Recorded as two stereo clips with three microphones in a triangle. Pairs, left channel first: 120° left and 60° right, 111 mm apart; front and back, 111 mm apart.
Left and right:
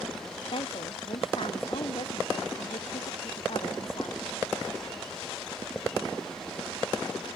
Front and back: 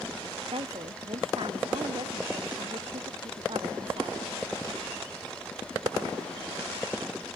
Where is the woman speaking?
150° left.